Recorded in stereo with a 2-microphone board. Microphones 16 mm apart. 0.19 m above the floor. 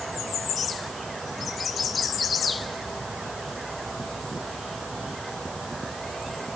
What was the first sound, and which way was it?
Only background noise.